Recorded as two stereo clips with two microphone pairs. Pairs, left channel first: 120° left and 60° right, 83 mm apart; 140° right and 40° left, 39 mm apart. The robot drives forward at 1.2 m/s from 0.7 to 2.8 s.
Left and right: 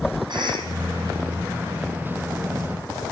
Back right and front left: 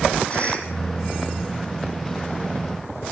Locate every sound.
0.3 s a cough: 85° right, 8.5 m